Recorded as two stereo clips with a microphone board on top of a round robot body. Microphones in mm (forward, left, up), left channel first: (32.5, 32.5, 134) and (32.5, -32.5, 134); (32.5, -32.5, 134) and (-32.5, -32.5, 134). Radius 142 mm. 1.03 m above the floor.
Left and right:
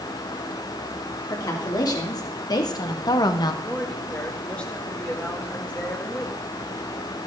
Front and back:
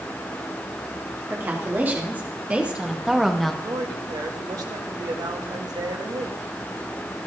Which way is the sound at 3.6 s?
160° left.